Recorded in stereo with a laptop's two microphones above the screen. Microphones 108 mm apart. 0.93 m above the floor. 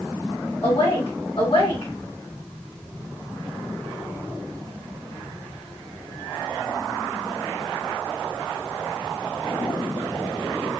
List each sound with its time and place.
0.6 s a woman speaking: 60° left (ahead or behind), 1.7 m